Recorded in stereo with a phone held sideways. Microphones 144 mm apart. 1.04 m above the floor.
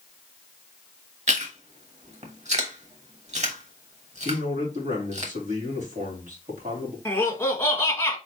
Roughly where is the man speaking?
Right.